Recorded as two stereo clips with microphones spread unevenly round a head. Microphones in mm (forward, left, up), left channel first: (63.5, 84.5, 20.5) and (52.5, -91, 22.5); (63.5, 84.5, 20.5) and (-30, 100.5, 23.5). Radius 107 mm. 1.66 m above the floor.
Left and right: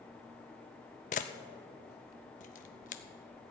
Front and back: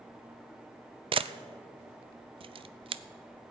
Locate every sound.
1.1 s a camera shutter: 145° left, 0.5 m